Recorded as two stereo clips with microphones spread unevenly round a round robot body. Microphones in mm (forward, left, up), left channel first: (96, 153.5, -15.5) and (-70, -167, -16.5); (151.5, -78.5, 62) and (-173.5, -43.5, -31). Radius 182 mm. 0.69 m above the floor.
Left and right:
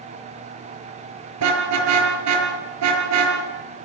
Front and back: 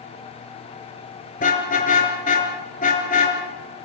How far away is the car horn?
About 5 m.